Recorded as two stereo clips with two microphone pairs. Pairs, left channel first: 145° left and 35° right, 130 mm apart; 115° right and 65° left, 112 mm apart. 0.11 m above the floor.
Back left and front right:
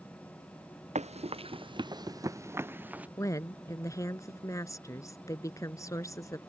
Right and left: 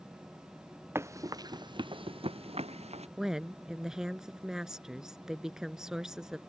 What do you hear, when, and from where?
0.9 s running footsteps: 5° right; by 3.1 s 45° left
3.2 s a woman speaking: 145° left